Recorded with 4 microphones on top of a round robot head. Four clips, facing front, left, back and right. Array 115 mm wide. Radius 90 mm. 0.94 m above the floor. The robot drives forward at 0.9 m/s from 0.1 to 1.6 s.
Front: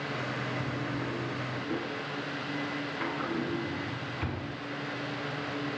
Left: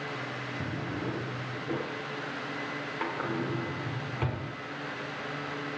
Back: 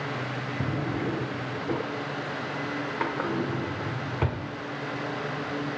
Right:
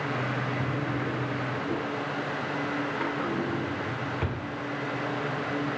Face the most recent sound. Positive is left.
turn(degrees=180)